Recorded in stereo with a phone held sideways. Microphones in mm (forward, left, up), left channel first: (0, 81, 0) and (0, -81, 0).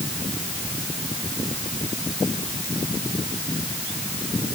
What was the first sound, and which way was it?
Only background noise.